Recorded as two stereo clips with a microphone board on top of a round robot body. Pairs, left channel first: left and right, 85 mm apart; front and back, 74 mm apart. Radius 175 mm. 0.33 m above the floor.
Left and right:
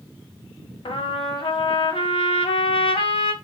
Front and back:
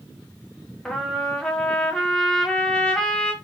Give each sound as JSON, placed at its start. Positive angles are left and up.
{"t": 0.8, "sound": "a trumpet", "azimuth_deg": 80, "distance_m": 1.1}